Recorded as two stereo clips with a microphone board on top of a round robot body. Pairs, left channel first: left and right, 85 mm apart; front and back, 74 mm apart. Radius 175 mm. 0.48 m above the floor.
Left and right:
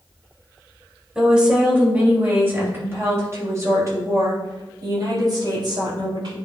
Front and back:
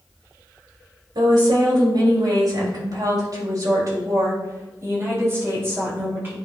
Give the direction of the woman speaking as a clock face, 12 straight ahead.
6 o'clock.